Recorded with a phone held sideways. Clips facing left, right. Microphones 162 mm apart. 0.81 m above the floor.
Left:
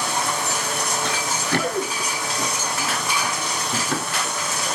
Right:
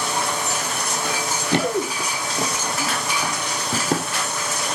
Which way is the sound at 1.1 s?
10° right (ahead or behind).